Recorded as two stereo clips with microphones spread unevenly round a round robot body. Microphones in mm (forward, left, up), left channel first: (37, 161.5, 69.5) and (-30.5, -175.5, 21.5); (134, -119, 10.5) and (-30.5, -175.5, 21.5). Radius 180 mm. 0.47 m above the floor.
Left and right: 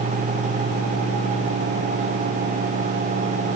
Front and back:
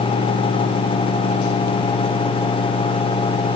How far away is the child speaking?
No child speaking in this recording.